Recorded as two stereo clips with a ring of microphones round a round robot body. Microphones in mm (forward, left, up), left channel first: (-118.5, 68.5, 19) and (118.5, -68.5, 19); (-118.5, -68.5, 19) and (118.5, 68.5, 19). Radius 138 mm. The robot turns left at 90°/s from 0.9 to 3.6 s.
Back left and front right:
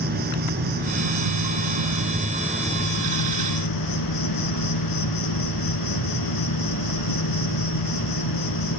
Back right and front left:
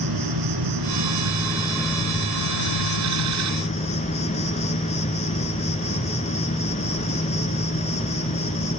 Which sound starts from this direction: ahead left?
An insect, at 0.0 s.